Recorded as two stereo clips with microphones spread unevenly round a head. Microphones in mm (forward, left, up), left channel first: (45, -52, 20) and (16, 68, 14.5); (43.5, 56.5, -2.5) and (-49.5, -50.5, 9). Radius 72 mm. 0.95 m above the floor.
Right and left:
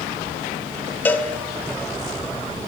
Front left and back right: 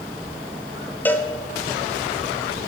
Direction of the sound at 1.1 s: 10° right.